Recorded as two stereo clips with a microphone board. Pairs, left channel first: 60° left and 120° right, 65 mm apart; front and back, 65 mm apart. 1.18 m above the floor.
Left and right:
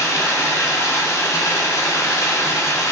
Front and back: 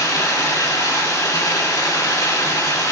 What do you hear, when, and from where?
0.0 s running water: 25° left, 2.5 m